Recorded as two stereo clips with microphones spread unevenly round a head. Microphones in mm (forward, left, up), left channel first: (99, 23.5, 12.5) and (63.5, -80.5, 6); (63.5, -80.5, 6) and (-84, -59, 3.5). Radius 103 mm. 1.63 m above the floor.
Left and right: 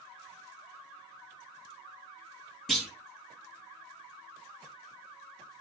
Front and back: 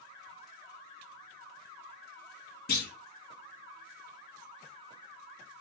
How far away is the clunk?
About 3 m.